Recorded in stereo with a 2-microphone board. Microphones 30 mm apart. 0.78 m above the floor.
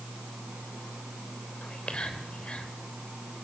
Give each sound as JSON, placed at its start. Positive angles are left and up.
{"t": 1.6, "sound": "whispering", "side_deg": 40, "distance_m": 3.0}